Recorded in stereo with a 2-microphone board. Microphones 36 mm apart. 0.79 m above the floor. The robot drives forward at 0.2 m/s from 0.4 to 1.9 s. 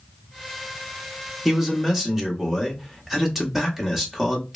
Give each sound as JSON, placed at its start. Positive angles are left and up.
{"t": 1.4, "sound": "a man speaking", "side_deg": -15, "distance_m": 0.8}